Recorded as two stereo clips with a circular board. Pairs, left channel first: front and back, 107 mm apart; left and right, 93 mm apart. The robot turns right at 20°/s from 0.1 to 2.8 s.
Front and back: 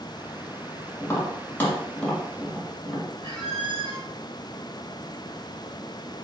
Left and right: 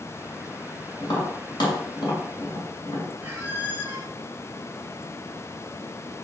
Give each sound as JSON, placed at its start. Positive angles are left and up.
{"t": 1.0, "sound": "tapping", "azimuth_deg": 55, "distance_m": 2.5}
{"t": 3.2, "sound": "a squeak", "azimuth_deg": -155, "distance_m": 1.1}